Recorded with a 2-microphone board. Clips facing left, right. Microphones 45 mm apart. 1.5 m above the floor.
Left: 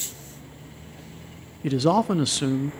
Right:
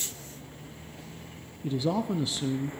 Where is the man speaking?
85° left, 0.5 m.